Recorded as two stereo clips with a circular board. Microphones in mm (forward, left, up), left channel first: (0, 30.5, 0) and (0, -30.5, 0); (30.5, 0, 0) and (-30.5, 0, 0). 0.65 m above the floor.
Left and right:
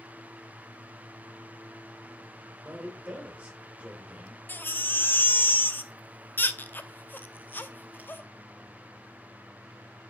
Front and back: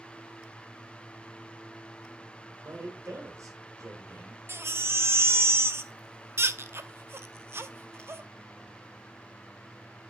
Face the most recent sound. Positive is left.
turn(degrees=140)